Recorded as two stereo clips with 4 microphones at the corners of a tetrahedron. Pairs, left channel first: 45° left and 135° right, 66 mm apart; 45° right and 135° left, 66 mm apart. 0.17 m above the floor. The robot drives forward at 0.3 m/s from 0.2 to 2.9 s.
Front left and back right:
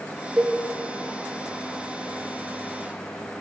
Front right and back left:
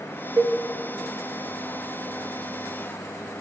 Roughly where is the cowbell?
Behind left.